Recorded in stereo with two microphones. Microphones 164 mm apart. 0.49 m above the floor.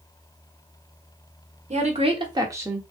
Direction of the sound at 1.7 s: 45° right (ahead or behind).